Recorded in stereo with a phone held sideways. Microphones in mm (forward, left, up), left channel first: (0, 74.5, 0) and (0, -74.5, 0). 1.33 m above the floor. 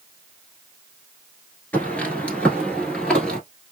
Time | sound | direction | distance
1.7 | footsteps | 10° left (ahead or behind) | 1.3 m